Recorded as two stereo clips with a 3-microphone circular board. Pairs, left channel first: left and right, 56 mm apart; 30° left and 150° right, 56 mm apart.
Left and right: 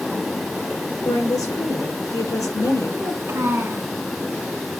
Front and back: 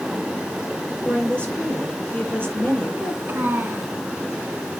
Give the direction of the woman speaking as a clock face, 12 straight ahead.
9 o'clock.